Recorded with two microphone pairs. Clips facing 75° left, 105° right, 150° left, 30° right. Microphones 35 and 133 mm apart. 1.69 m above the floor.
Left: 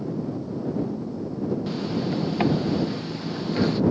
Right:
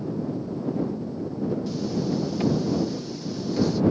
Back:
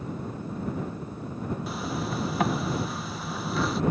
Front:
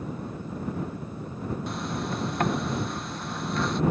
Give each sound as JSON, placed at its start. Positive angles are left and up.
{"t": 1.7, "sound": "a zipper", "azimuth_deg": 65}